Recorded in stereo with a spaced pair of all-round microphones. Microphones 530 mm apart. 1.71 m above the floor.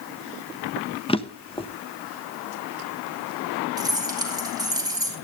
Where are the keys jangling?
10° right (ahead or behind), 4 m.